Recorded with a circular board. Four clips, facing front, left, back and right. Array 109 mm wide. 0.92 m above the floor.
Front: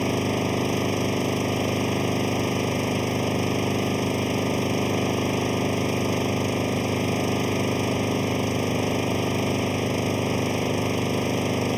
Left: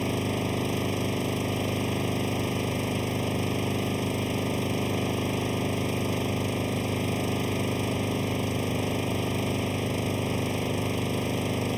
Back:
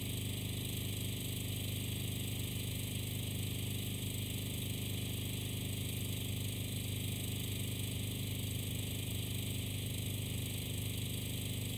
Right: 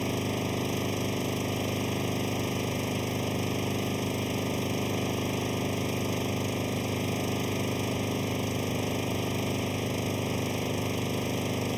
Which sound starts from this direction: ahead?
An engine running, at 0.0 s.